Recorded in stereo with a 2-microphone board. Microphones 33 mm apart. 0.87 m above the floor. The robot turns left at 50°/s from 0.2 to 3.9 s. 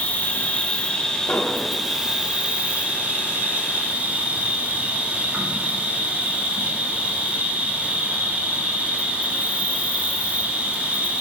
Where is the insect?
75° left, 2.5 m; by 11.2 s 110° right, 2.5 m.